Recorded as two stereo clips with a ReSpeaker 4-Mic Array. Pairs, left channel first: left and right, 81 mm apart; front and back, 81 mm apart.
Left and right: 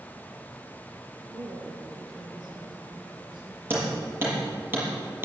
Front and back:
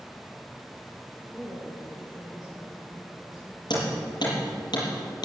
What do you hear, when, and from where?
1.3 s a woman speaking: 85° right, 5.5 m; by 3.6 s 90° right, 4.5 m
3.7 s hammering: 25° right, 6 m